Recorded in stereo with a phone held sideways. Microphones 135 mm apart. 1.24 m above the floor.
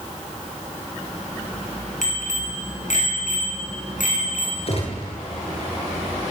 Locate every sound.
2.0 s a bicycle bell: 65° left (ahead or behind), 9 m; by 4.6 s 80° left, 9 m
4.7 s a gunshot: 50° left (ahead or behind), 9 m